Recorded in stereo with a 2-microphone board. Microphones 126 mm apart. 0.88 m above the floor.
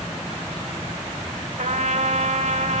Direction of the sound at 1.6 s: 70° right (ahead or behind).